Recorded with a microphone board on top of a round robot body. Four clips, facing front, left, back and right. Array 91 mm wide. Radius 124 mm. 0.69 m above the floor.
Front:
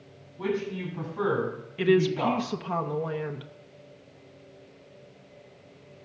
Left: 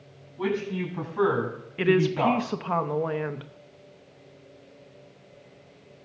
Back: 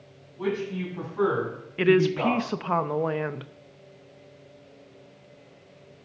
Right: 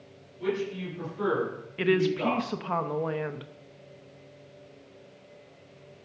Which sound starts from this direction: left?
A man speaking, at 0.4 s.